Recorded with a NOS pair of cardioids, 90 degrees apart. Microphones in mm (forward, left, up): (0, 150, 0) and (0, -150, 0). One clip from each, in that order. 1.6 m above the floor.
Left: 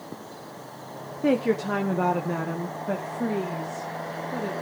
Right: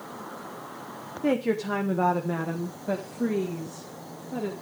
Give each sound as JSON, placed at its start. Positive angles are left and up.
{"t": 1.2, "sound": "a woman speaking", "azimuth_deg": 15, "distance_m": 1.0}